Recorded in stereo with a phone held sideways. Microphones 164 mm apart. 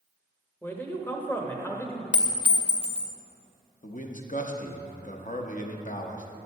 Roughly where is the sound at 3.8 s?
Left.